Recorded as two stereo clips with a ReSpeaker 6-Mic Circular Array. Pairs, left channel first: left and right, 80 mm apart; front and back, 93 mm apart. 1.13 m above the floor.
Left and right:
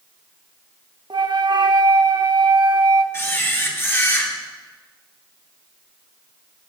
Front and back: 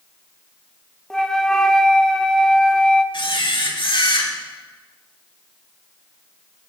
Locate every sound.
1.1 s a flute: 85° right, 0.9 m
3.1 s a camera shutter: 30° left, 2 m